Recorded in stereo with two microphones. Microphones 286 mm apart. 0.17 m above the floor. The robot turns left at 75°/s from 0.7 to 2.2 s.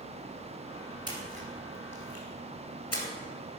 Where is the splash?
15° right (ahead or behind), 2 m; by 3.0 s 60° left (ahead or behind), 2 m.